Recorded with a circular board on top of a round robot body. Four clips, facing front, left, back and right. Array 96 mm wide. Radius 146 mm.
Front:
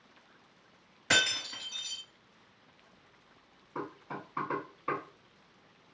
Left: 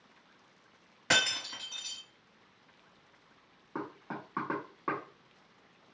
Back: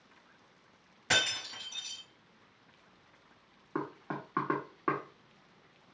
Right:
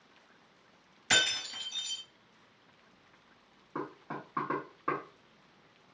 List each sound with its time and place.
1.1 s breaking glass: 90° left, 2 m
3.8 s knocking: 170° left, 1.5 m